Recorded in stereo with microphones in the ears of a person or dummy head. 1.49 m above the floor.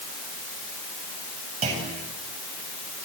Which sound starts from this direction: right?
A clunk, at 1.6 s.